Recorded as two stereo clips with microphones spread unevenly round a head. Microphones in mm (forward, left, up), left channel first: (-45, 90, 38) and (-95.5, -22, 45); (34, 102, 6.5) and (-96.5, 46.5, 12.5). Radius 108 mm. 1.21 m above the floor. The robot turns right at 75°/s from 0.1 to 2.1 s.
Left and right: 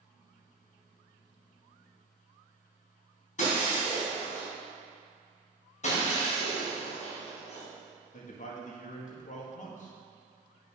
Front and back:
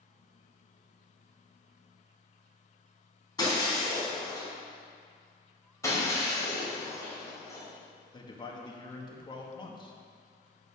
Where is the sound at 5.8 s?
90° left, 4 m.